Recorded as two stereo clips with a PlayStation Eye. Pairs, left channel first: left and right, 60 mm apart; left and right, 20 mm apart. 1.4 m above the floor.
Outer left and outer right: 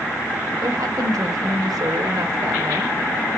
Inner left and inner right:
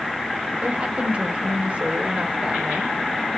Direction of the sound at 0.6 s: 85° right.